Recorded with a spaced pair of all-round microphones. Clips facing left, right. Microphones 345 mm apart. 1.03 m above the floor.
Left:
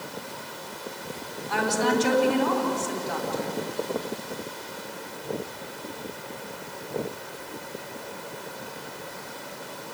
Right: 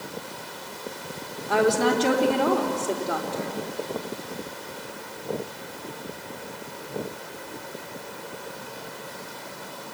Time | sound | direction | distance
1.5 | a woman speaking | 60° right (ahead or behind) | 3.5 m